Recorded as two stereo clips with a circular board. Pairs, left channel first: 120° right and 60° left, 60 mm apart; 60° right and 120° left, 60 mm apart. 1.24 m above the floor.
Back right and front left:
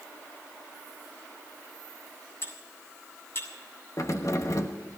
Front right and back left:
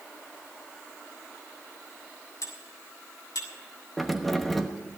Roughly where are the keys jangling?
Behind right.